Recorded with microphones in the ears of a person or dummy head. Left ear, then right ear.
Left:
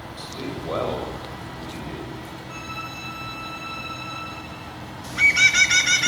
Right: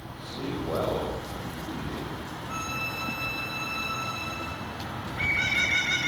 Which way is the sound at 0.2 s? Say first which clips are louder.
Left 1 dB; 85° left.